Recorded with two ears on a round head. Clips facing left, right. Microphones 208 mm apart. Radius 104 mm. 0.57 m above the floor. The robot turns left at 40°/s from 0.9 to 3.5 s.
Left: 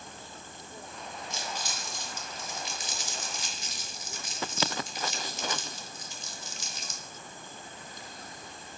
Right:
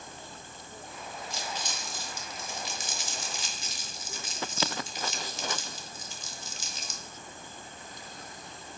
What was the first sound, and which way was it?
Crumpling, 20° left (ahead or behind).